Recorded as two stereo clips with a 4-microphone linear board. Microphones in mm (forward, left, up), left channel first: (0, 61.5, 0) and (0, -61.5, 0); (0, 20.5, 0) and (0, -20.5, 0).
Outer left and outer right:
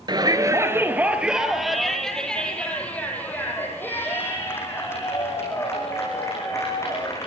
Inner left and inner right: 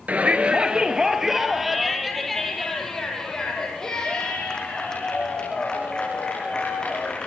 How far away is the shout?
About 1.9 m.